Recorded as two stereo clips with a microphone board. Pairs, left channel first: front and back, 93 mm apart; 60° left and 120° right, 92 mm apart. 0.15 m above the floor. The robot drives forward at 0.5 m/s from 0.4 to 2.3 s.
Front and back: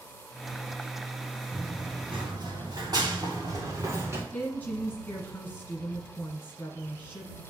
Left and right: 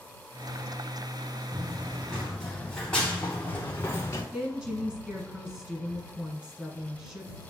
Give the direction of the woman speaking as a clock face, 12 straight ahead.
2 o'clock.